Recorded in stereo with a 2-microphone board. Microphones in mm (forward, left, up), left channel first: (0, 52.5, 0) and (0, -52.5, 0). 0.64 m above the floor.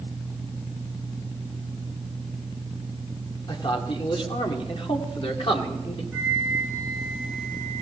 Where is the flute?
15° right (ahead or behind), 8.5 m.